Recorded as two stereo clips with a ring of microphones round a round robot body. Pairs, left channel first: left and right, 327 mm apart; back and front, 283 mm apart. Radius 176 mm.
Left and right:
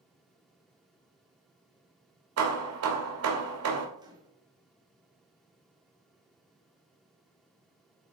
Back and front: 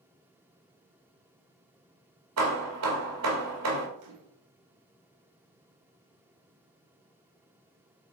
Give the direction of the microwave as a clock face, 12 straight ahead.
12 o'clock.